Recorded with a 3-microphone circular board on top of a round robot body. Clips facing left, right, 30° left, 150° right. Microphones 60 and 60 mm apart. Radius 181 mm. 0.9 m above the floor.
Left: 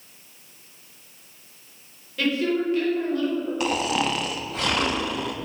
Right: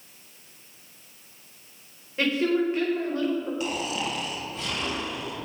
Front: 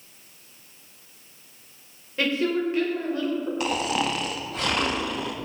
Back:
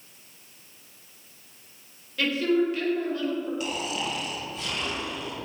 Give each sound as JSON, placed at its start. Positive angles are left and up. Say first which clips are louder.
{"t": 2.2, "sound": "a woman speaking", "louder": "even, back 1 dB", "azimuth_deg": -30, "distance_m": 4.5}
{"t": 3.6, "sound": "snoring", "louder": "left 6 dB, front 5 dB", "azimuth_deg": 60, "distance_m": 1.0}